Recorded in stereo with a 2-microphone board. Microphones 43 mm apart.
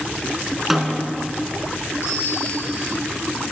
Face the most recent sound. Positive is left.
turn(degrees=70)  # may be behind; listen again after turning